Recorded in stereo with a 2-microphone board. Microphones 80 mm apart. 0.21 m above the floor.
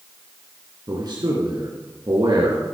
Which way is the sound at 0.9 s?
60° right (ahead or behind).